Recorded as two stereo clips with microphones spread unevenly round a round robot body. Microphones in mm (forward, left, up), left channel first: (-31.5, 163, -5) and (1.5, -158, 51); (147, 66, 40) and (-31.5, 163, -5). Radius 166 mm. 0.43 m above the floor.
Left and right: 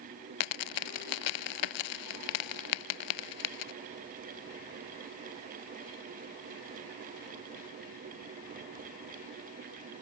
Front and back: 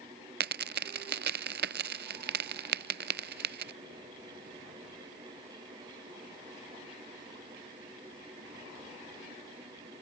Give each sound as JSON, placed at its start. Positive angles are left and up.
{"t": 0.4, "sound": "a dropped coin", "azimuth_deg": 115}